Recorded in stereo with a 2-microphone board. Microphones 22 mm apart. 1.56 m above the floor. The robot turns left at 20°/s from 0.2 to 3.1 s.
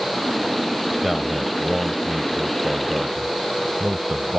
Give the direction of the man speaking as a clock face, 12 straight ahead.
12 o'clock.